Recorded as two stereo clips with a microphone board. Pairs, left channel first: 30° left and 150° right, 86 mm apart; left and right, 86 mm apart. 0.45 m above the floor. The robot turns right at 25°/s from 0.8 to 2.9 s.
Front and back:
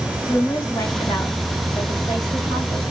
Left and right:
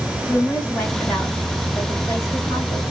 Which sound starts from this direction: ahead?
A woman speaking, at 0.3 s.